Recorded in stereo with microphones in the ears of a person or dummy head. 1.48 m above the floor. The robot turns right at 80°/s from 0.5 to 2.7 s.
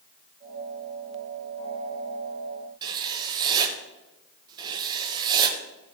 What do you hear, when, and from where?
2.8 s writing: 20° right (ahead or behind), 1.2 m